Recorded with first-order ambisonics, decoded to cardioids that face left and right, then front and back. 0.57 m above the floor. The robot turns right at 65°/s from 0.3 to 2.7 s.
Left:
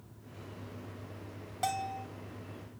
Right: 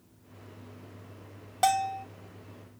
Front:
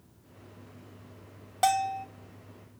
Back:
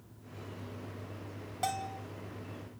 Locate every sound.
1.6 s a bell: 45° right, 0.5 m; by 2.1 s 15° right, 0.5 m